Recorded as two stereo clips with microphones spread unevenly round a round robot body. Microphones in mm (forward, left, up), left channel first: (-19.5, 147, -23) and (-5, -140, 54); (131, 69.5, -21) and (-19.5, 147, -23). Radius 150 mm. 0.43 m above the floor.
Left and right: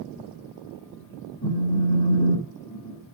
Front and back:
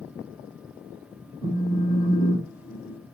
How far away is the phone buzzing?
About 2.5 m.